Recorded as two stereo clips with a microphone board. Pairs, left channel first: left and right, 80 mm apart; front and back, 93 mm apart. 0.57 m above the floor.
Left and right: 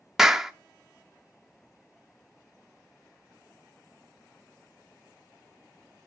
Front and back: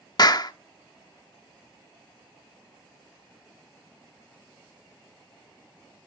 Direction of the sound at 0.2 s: 10° right.